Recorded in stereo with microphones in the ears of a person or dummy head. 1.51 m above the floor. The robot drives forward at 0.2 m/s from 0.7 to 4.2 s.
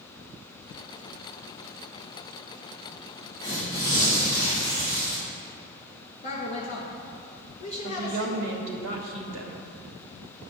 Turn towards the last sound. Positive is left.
turn(degrees=-75)  # may be behind; listen again after turning